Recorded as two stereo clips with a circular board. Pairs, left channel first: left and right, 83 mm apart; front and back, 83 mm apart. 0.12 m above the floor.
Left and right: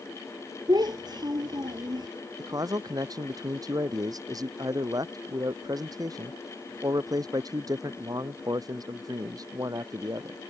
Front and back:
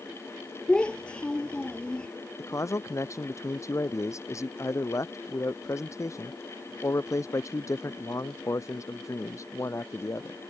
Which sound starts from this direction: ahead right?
A man speaking, at 2.4 s.